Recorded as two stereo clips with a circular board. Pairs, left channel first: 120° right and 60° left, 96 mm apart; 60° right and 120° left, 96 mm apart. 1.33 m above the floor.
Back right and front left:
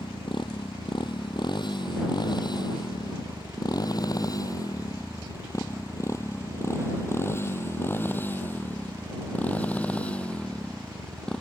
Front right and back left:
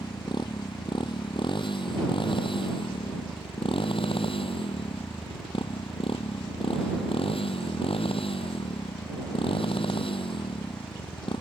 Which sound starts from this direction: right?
A motorcycle, at 0.0 s.